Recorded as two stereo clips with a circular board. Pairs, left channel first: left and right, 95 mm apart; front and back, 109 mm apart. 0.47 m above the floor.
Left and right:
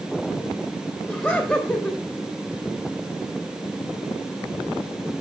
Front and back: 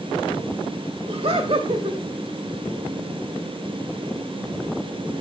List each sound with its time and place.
1.1 s laughter: 170° left, 1.9 m